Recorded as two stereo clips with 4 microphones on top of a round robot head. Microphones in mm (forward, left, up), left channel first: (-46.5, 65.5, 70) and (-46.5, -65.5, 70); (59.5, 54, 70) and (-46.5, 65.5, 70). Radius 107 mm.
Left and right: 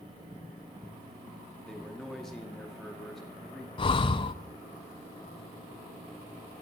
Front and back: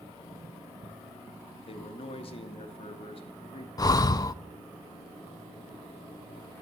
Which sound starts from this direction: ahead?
A man speaking, at 1.7 s.